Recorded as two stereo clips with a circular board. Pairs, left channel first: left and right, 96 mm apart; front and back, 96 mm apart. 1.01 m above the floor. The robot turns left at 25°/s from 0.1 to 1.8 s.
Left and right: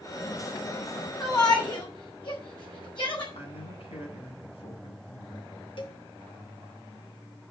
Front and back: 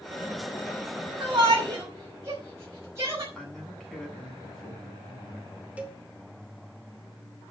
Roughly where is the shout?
Behind left.